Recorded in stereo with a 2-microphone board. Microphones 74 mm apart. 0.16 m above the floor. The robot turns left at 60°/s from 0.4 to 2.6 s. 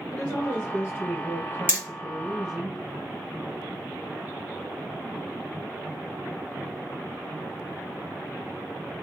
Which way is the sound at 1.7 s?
25° right (ahead or behind).